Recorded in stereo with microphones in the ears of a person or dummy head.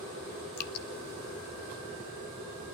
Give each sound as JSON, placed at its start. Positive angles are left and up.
{"t": 0.6, "sound": "dripping", "side_deg": 55, "distance_m": 1.1}